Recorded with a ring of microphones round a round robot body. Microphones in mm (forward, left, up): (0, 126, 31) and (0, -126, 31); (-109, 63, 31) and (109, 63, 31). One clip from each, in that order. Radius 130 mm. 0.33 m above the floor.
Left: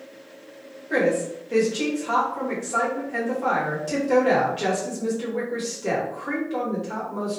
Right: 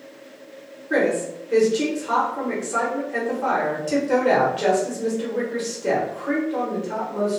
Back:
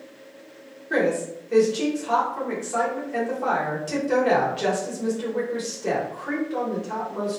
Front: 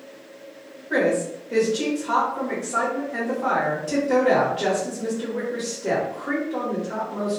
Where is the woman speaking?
155° right, 1.1 m.